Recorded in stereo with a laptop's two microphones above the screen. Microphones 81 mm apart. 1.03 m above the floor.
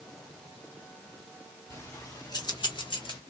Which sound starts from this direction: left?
Keys jangling, at 1.7 s.